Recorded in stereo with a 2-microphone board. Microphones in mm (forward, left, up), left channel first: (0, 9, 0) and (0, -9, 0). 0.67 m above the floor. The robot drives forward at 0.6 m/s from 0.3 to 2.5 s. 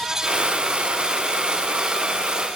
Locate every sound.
Only background noise.